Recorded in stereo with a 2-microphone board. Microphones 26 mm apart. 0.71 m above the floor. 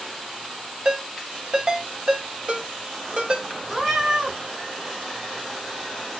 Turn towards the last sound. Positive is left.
turn(degrees=-15)  # may be behind; listen again after turning